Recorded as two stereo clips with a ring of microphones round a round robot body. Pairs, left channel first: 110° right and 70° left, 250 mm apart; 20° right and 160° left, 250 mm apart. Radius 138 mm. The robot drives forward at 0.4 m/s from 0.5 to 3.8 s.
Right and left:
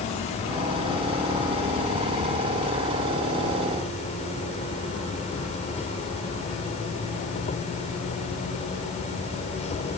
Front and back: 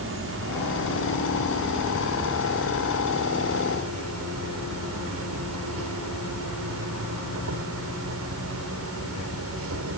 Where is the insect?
175° right.